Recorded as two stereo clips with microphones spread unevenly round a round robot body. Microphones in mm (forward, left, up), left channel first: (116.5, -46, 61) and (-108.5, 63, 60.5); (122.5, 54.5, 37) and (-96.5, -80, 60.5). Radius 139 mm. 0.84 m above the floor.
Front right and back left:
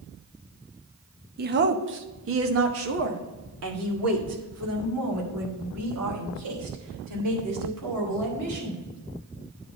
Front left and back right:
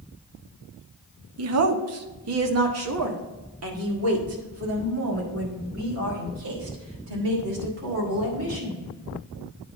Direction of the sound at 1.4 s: 160° right.